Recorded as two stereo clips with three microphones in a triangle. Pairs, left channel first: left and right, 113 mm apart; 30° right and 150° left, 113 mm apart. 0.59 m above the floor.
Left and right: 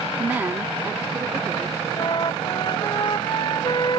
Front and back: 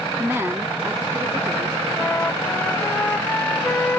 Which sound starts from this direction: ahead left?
A flute, at 2.0 s.